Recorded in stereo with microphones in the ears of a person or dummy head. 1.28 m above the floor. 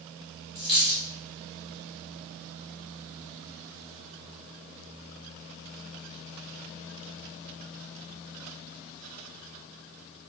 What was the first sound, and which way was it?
A dropped coin, 5° right (ahead or behind).